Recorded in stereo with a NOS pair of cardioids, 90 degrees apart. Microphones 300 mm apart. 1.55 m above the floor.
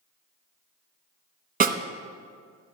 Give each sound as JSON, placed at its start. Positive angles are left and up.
{"t": 1.6, "sound": "a snare drum", "azimuth_deg": -30, "distance_m": 0.8}